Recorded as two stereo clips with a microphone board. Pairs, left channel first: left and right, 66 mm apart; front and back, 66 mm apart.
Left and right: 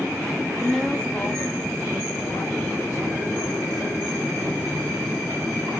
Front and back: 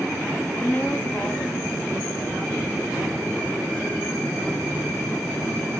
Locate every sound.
0.6 s a woman speaking: 10° right, 1.2 m; by 5.7 s 105° left, 4.5 m